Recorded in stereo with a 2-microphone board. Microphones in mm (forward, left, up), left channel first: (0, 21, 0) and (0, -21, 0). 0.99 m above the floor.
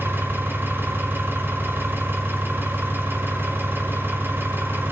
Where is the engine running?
60° right (ahead or behind), 5.5 m.